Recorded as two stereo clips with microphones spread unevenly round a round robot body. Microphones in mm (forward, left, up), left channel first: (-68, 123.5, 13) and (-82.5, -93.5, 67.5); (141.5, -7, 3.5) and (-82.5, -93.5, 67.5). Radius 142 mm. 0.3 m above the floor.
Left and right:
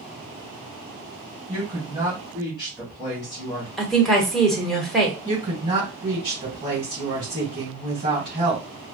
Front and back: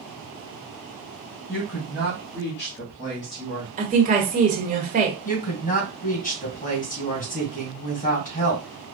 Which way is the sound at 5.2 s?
20° right.